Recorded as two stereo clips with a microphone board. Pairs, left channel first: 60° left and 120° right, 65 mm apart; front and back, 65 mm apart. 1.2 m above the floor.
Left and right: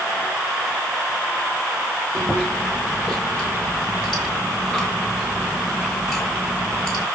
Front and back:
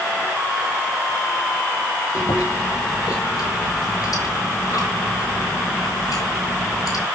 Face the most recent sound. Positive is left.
turn(degrees=-25)